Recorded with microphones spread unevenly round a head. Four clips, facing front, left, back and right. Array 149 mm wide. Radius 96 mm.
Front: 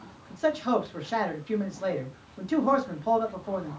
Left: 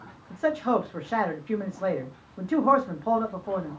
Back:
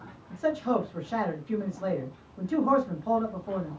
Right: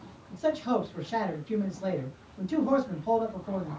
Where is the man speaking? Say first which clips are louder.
Left 3 dB, front 1 dB; 65° left, 1.5 m.